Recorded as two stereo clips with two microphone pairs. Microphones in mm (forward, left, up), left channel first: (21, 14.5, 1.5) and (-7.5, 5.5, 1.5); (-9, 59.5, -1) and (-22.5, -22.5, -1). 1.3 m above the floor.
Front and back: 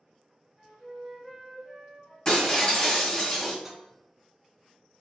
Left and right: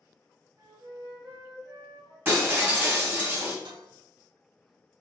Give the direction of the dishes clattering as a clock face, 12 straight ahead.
3 o'clock.